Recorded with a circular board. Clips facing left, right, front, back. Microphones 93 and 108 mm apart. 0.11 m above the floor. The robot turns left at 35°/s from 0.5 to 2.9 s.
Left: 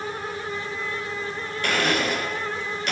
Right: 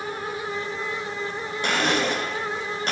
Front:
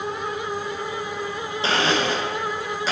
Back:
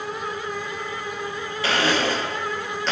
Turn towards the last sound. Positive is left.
turn(degrees=-85)